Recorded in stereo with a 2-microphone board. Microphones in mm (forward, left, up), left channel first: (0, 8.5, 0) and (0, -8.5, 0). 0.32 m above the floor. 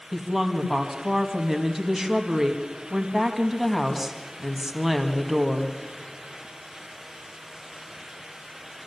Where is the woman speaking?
20° right (ahead or behind), 2.0 m.